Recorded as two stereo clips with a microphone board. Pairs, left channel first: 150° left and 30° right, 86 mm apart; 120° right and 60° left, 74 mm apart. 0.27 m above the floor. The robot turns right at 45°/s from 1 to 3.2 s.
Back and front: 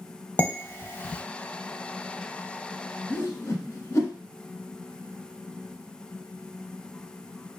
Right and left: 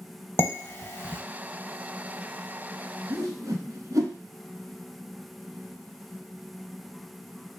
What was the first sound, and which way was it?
Dishes clattering, 155° right.